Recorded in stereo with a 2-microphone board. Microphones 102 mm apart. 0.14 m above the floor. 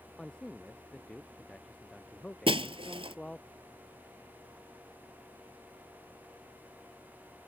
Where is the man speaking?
5° left (ahead or behind); by 3.5 s 10° left (ahead or behind).